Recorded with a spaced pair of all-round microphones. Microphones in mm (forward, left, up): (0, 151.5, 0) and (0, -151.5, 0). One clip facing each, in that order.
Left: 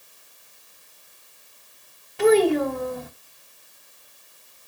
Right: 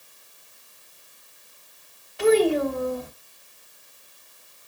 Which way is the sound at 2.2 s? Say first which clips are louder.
Left 2 dB; 50° left (ahead or behind).